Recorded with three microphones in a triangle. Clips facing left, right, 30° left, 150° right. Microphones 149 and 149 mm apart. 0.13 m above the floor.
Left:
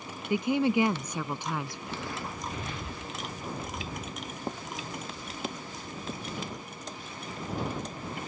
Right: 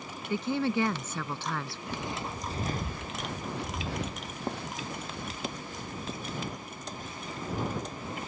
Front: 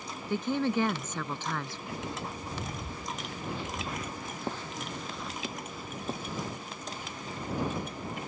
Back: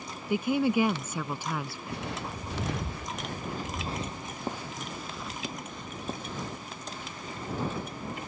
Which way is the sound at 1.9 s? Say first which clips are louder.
Right 3 dB, back 1 dB; 165° right.